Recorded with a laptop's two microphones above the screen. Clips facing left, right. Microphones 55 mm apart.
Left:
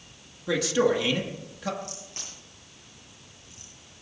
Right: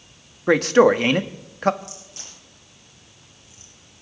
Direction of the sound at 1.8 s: 40° left (ahead or behind).